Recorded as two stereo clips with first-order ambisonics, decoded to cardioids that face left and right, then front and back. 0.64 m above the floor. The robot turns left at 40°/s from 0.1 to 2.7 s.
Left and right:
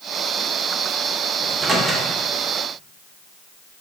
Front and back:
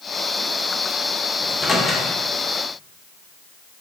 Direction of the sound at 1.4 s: 40° right.